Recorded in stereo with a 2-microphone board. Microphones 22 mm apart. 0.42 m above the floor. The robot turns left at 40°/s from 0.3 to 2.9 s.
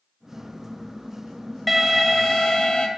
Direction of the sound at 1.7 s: 175° right.